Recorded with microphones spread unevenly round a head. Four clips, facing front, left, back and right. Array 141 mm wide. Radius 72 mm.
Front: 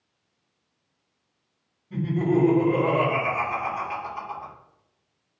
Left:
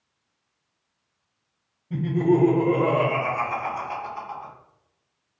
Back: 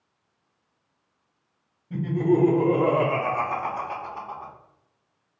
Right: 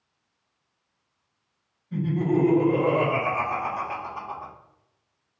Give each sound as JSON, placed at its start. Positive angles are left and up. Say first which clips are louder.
{"t": 1.9, "sound": "laughter", "louder": "left 3 dB, back 1 dB", "azimuth_deg": 120, "distance_m": 1.1}